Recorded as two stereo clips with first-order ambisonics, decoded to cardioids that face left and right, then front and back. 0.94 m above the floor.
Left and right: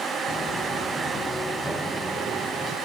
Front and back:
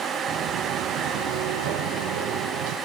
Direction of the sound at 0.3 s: 145° left.